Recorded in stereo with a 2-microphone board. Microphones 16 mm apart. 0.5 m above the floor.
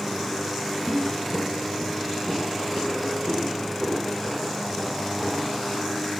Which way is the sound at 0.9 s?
70° right (ahead or behind).